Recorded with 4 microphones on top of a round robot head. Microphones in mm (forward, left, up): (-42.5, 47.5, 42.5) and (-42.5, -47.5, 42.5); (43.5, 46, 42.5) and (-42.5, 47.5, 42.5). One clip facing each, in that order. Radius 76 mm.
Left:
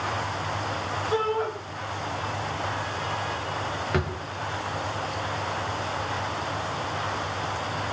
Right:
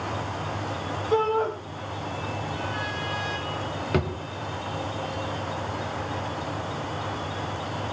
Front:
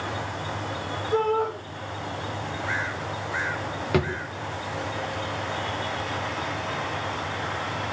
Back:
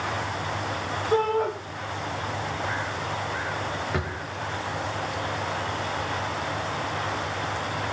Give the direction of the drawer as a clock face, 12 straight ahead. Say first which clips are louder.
Right 3 dB, front 5 dB; 1 o'clock.